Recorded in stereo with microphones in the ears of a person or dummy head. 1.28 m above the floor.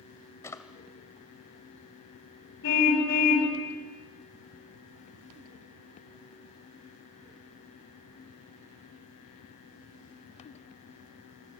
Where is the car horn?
60° left (ahead or behind), 5 m.